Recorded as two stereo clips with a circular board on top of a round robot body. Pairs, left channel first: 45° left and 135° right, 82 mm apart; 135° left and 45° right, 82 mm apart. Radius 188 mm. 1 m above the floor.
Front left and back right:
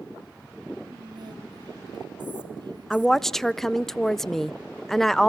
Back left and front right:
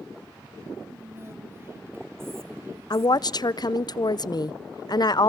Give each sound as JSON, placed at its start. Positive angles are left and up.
{"t": 0.8, "sound": "whispering", "azimuth_deg": -105, "distance_m": 3.0}
{"t": 2.9, "sound": "a woman speaking", "azimuth_deg": 130, "distance_m": 0.7}